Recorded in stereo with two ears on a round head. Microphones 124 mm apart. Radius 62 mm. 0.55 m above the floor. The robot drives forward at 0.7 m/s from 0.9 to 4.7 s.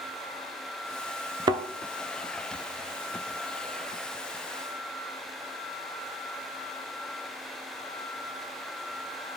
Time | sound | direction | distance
1.5 | a thud | 30° right (ahead or behind) | 0.5 m